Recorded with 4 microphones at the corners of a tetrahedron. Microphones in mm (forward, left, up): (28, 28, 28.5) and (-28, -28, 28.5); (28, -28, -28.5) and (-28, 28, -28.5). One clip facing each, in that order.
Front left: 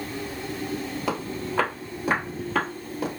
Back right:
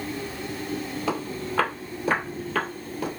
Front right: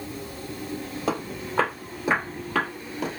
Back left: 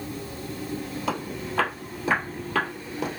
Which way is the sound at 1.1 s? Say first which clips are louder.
Even, front right 2 dB; 25° right.